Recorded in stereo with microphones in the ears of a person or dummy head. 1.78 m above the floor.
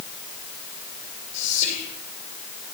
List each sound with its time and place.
1.3 s whispering: 40° left (ahead or behind), 7.5 m